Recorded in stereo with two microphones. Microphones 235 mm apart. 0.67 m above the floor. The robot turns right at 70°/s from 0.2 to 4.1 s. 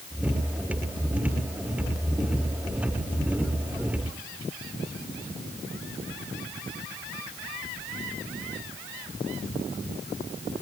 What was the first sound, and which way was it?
Only background noise.